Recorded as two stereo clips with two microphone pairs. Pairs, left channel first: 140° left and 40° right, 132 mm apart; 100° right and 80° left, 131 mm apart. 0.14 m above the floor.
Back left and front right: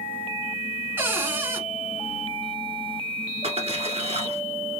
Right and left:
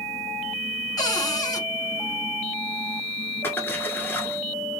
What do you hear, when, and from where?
1.0 s a cupboard door: 95° right, 1.0 m
3.4 s a splash: 30° right, 0.9 m